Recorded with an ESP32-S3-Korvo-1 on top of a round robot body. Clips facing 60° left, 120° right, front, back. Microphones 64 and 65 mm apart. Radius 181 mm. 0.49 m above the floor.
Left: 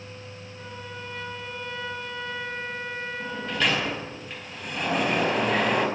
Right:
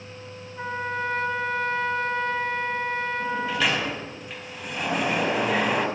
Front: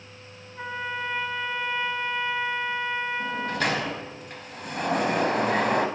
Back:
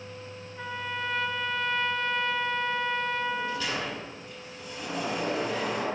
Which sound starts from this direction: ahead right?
A sliding door, at 3.2 s.